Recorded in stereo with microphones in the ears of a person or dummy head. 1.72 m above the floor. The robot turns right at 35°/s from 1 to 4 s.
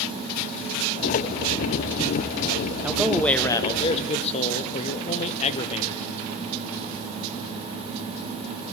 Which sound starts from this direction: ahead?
A man speaking, at 2.8 s.